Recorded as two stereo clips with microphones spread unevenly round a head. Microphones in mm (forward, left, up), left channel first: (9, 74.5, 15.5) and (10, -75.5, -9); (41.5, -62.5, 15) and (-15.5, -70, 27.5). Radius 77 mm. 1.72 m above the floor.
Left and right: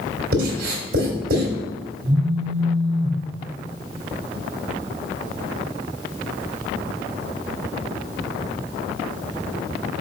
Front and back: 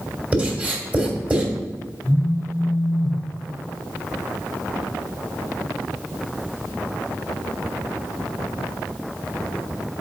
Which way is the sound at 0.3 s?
120° right.